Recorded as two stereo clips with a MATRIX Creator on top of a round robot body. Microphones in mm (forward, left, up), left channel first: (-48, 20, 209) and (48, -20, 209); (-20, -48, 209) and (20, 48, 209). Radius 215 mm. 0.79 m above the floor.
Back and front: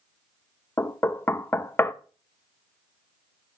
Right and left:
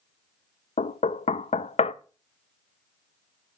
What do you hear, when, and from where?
0.8 s knocking: 130° right, 0.6 m